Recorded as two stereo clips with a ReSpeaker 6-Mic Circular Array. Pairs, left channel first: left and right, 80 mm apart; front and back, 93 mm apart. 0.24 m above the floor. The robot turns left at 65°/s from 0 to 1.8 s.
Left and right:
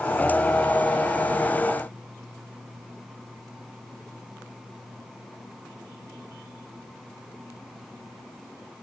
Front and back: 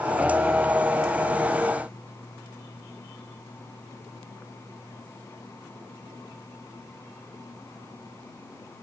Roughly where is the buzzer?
I don't hear a buzzer.